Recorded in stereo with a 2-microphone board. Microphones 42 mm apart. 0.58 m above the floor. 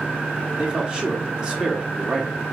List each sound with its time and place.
0.6 s a man speaking: 20° right (ahead or behind), 1.1 m